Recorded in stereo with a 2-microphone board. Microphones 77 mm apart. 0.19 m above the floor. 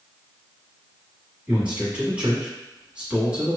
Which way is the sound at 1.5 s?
15° right (ahead or behind).